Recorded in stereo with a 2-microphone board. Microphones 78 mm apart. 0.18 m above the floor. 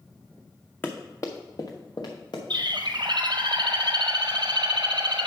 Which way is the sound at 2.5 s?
70° right (ahead or behind).